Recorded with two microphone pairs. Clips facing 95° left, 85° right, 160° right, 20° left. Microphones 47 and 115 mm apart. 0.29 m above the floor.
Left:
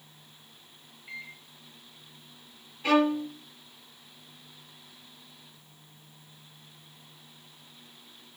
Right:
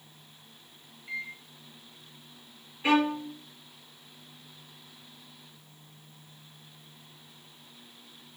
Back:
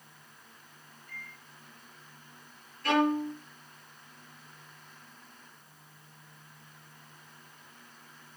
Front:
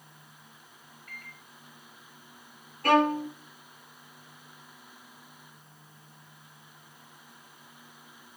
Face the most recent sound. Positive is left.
turn(degrees=-15)